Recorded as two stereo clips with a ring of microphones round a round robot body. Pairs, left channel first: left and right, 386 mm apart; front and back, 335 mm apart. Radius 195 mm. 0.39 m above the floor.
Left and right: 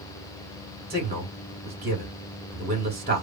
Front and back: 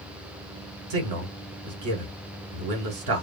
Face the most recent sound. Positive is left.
turn(degrees=-155)